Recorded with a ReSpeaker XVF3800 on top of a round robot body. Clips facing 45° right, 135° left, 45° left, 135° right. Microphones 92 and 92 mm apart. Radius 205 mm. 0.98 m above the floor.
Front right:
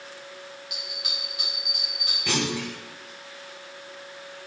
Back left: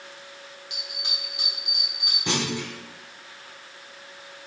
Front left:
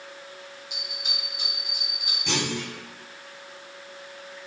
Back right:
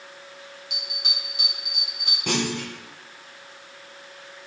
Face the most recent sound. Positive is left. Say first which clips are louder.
# even, back right 3 dB
turn(degrees=-160)